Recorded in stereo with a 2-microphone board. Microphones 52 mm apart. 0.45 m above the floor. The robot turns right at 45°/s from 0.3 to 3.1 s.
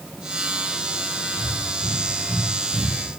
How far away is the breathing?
About 6 m.